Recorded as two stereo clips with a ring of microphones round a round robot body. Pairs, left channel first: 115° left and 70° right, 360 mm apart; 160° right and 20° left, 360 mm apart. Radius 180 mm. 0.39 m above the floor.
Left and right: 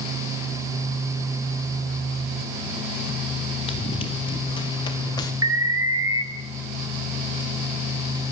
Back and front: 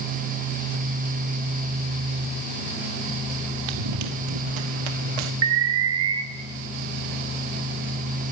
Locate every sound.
3.7 s running footsteps: 35° left, 3.5 m; by 5.3 s 30° left, 2 m
5.4 s an alarm: 10° left, 2 m